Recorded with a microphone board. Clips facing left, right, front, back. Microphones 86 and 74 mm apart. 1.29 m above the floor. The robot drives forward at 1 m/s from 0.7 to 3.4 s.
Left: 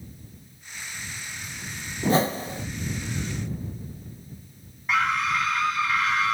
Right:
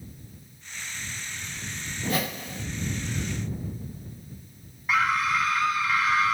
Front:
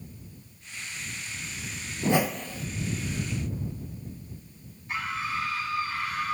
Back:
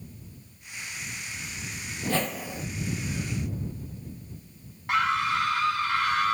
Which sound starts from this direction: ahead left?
A whoosh, at 2.0 s.